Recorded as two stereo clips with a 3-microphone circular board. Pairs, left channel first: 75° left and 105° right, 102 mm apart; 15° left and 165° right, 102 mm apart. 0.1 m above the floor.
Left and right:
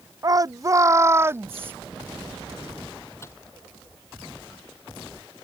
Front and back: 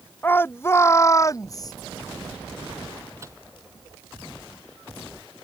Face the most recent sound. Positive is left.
turn(degrees=135)